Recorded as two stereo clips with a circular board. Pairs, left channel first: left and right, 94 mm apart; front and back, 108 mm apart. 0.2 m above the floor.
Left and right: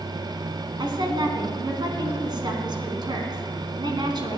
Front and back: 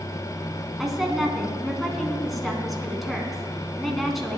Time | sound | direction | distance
0.8 | a woman speaking | 90° right | 2 m